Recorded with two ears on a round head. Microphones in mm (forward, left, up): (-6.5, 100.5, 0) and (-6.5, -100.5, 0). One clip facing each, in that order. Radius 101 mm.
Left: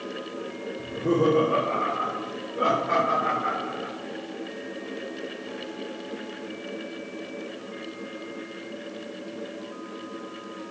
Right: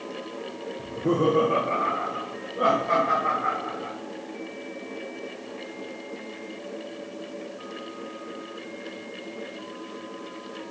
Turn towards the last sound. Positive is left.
turn(degrees=5)  # may be behind; listen again after turning